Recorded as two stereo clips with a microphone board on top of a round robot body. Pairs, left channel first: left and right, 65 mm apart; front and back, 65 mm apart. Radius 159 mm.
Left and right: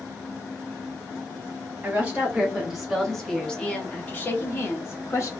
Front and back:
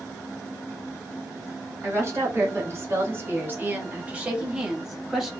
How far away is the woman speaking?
About 1.5 m.